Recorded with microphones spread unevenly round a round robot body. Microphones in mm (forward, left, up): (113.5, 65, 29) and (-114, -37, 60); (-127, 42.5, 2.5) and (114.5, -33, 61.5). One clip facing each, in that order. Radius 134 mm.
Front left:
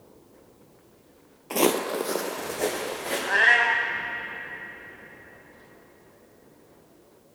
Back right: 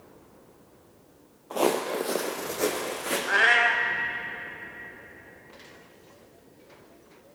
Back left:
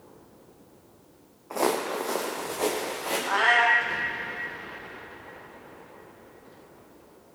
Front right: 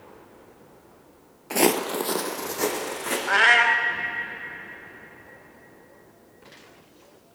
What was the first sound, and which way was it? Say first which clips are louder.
Footsteps: front left 2 dB, front right 5 dB; 30° right.